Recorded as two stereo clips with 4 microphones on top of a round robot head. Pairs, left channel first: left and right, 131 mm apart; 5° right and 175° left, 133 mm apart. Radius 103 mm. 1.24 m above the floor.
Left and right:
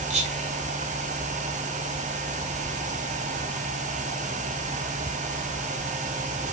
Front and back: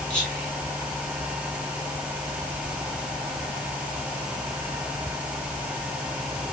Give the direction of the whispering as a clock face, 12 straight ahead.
3 o'clock.